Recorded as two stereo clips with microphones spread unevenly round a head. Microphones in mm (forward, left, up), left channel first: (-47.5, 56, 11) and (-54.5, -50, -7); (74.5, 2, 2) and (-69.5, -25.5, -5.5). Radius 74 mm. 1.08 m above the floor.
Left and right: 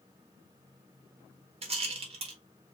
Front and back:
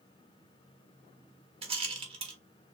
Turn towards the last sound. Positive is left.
turn(degrees=-115)